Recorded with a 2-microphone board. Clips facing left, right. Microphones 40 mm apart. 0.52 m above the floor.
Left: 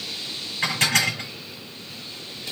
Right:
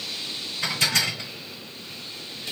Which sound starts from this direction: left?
Dishes clattering, at 0.6 s.